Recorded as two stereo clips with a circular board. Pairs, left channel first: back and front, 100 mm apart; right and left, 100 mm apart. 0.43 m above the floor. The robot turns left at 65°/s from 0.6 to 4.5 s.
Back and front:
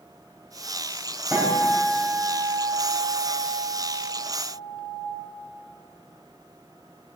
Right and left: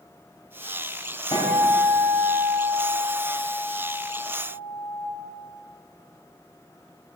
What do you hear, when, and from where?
1.3 s a guitar: 70° right, 2.5 m; by 5.1 s 85° left, 2.5 m